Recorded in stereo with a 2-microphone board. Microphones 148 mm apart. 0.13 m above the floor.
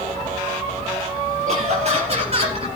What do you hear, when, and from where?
1.5 s laughter: 45° right (ahead or behind), 3.5 m; by 2.7 s 40° right (ahead or behind), 3 m